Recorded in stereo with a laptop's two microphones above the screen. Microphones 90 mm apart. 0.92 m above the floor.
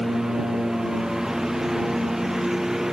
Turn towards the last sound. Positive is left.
turn(degrees=-5)  # may be behind; listen again after turning